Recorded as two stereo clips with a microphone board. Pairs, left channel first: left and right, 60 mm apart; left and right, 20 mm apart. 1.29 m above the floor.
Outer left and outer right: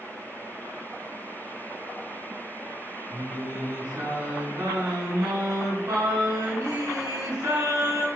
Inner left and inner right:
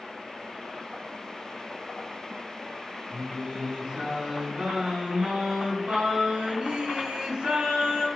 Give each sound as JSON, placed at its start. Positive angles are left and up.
{"t": 3.1, "sound": "singing", "side_deg": -90, "distance_m": 3.0}